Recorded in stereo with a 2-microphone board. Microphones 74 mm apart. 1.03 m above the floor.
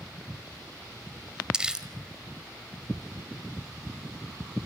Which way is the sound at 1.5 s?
10° right (ahead or behind).